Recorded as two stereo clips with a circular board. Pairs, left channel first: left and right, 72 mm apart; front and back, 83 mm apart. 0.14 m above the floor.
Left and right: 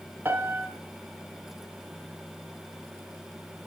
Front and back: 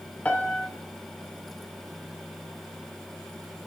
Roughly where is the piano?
Ahead right.